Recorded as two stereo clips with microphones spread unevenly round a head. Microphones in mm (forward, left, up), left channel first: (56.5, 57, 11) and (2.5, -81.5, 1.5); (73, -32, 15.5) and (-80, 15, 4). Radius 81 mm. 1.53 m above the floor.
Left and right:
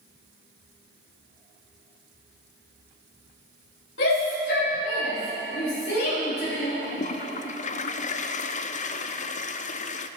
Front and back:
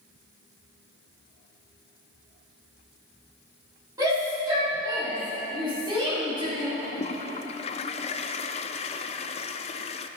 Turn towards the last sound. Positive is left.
turn(degrees=35)